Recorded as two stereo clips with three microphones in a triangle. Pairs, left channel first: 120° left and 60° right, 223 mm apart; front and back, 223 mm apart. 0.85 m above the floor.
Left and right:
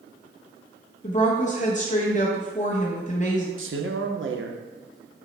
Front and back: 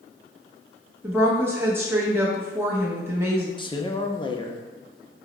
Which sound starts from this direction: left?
A woman speaking, at 1.0 s.